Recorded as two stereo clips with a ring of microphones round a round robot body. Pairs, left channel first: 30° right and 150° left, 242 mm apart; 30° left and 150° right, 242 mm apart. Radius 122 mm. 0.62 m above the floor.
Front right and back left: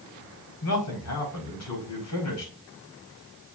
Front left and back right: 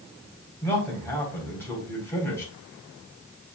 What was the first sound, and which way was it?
A man speaking, 50° right.